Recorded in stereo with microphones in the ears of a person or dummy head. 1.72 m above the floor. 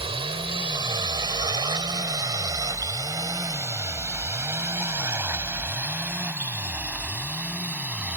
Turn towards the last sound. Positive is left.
turn(degrees=-5)  # may be behind; listen again after turning